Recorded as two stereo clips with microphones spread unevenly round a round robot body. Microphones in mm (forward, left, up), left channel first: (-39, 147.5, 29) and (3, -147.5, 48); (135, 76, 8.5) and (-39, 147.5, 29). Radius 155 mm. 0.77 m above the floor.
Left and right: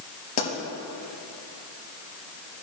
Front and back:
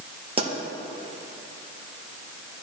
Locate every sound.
0.4 s a pop: 100° left, 3.5 m